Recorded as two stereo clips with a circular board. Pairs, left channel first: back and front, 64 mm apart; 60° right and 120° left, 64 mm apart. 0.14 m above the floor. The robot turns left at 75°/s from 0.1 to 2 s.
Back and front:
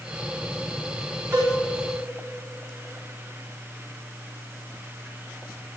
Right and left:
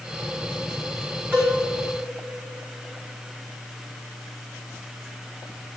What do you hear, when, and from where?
1.3 s a cowbell: 60° left, 5.5 m; by 1.6 s 40° left, 5.5 m